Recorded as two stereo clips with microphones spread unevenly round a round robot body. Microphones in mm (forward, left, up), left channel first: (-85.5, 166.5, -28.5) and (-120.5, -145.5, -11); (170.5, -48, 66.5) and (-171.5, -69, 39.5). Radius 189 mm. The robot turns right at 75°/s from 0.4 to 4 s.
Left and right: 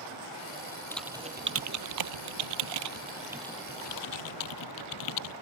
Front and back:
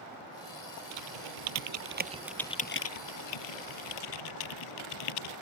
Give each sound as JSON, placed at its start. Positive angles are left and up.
{"t": 0.9, "sound": "typing on a keyboard", "azimuth_deg": 165}